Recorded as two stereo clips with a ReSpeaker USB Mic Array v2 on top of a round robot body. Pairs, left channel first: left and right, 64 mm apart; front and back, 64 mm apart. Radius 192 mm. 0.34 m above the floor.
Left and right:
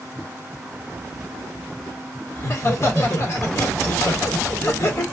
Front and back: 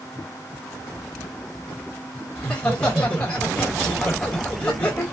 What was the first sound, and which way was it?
Laughter, 65° left.